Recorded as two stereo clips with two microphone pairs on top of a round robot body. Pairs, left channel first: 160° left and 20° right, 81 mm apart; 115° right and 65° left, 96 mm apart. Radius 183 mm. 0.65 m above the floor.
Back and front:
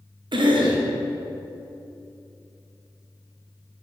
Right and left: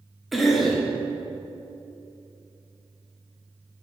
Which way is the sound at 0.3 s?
20° right.